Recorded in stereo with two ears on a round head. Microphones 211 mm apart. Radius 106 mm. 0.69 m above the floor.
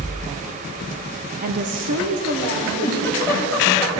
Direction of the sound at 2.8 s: 15° left (ahead or behind).